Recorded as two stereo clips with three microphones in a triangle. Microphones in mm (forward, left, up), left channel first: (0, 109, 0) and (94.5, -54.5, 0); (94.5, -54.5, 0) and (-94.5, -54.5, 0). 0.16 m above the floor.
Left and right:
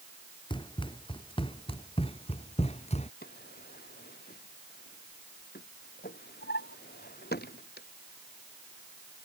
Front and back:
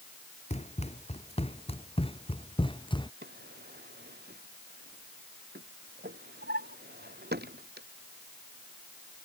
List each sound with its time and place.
0.5 s running footsteps: 55° left; by 3.1 s 65° left
3.2 s a drawer: 150° left